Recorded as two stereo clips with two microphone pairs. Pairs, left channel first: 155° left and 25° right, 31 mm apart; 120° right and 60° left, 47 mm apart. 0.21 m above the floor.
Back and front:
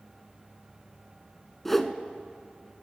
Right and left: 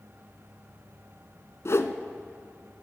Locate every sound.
1.6 s a whoosh: 125° right, 0.7 m